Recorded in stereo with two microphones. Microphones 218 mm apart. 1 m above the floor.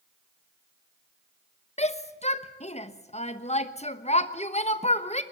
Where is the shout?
30° left (ahead or behind), 1.1 m.